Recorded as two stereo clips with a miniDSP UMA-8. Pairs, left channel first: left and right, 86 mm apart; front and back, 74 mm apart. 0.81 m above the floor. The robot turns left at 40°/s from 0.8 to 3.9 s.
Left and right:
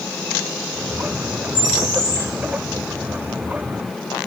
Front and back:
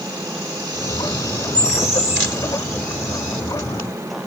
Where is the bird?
45° right, 4 m; by 2.3 s 70° right, 4 m.